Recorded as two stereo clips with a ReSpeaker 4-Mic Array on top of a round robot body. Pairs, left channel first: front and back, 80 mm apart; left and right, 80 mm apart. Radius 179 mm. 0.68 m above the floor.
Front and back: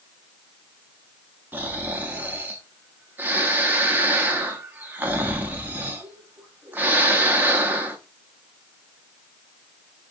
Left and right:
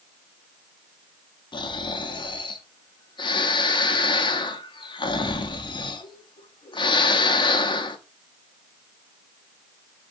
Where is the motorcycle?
I don't hear a motorcycle.